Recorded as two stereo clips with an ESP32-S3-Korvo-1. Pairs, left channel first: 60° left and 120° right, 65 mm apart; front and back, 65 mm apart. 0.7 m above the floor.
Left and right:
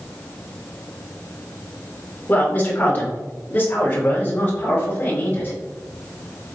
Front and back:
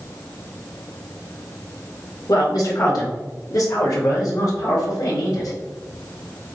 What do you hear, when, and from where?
2.3 s a man speaking: straight ahead, 2.5 m